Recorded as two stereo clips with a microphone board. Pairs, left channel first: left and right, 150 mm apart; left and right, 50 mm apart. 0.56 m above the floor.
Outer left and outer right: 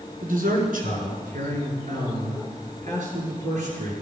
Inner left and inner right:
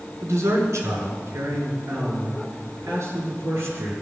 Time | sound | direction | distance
0.2 | a man speaking | 65° right (ahead or behind) | 6 m